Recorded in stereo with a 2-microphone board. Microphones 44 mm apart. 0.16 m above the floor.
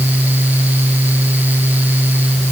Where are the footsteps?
I don't hear footsteps.